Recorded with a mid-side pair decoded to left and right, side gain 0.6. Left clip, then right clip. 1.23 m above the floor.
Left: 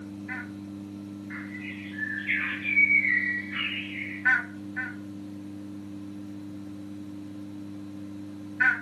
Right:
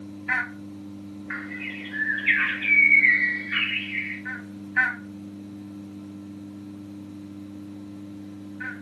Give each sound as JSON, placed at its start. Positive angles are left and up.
{"t": 1.3, "sound": "a bird", "azimuth_deg": -60, "distance_m": 0.8}